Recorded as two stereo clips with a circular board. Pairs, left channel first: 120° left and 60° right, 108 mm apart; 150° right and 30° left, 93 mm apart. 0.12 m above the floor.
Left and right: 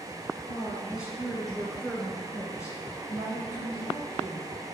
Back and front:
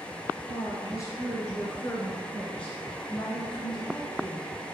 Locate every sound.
0.5 s a woman speaking: 125° right, 1.4 m; by 4.5 s 110° left, 1.7 m